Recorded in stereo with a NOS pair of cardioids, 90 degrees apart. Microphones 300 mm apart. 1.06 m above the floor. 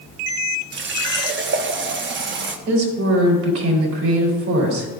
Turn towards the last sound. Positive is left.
turn(degrees=-60)